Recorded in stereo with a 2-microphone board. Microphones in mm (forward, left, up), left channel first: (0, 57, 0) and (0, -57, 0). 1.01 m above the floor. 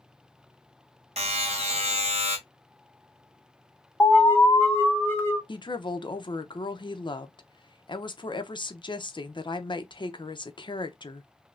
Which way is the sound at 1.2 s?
70° right (ahead or behind).